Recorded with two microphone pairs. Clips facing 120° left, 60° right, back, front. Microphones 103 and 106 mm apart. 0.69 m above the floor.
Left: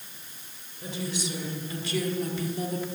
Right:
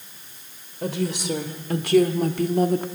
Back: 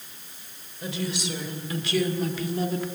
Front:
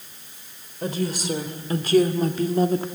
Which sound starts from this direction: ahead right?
A woman speaking, at 0.8 s.